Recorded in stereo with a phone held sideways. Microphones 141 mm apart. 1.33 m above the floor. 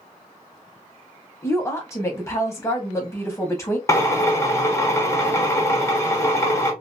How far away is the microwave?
I don't hear a microwave.